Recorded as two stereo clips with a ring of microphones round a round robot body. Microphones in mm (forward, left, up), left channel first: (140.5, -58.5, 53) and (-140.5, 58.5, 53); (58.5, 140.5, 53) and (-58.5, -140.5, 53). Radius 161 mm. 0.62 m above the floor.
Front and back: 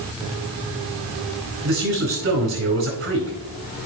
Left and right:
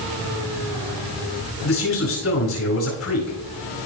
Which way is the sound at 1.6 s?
105° left.